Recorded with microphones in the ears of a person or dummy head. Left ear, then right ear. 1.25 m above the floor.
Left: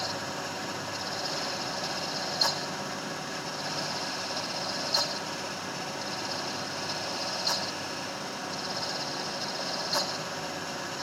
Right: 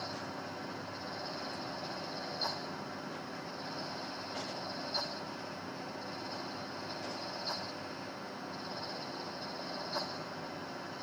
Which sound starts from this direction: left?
A fan, at 0.0 s.